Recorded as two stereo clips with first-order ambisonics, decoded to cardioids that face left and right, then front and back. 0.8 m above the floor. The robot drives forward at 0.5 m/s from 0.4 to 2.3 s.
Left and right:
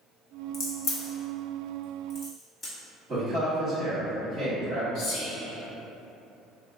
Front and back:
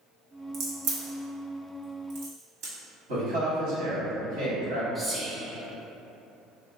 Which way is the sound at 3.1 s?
165° right.